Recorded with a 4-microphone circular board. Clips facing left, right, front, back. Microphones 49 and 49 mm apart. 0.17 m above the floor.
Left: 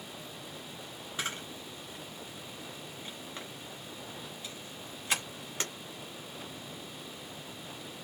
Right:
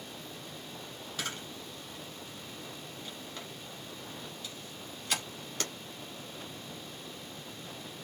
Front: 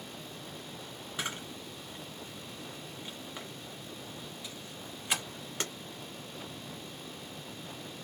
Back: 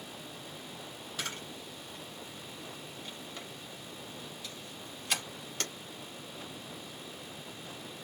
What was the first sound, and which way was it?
A camera shutter, 50° left.